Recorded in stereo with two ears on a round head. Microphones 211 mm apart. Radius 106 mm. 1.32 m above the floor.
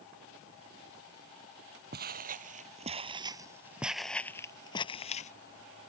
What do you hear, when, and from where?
1.9 s footsteps: 45° right (ahead or behind); by 5.3 s 30° left (ahead or behind)